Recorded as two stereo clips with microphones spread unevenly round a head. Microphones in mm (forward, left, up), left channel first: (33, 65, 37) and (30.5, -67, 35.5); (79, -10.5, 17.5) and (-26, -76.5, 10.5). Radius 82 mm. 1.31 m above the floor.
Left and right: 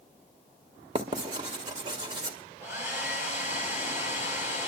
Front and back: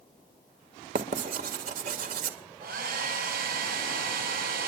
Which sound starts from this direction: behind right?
Writing, at 0.9 s.